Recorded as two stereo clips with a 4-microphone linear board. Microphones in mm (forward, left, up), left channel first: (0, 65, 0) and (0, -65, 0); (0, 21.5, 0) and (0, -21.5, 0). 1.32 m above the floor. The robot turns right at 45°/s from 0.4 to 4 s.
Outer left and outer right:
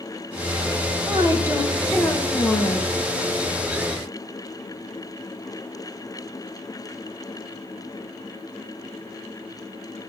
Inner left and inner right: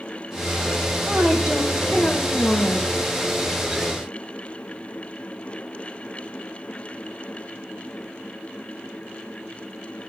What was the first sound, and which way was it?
A woman speaking, 40° right.